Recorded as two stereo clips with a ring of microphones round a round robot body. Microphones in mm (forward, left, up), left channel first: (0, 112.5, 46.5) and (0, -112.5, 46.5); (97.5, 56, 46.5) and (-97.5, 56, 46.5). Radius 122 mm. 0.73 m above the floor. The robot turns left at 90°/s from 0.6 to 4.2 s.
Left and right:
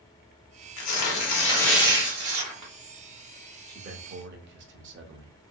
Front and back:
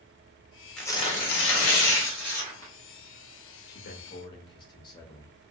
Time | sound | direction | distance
0.8 | tearing paper | 85° left | 1.0 m
3.7 | a man speaking | 20° right | 0.7 m